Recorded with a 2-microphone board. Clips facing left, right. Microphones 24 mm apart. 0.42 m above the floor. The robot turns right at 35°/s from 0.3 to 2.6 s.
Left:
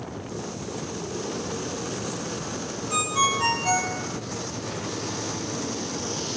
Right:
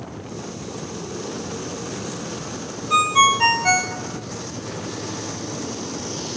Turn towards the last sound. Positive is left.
turn(degrees=-50)  # may be behind; listen again after turning